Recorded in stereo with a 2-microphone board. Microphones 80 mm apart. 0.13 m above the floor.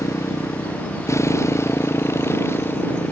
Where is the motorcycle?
40° left (ahead or behind); by 3.1 s 30° left (ahead or behind).